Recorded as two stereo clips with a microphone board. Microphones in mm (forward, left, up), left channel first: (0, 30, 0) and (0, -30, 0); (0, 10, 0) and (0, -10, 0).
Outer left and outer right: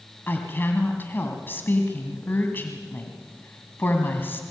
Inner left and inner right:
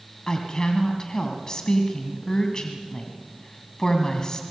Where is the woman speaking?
35° left (ahead or behind), 2 m.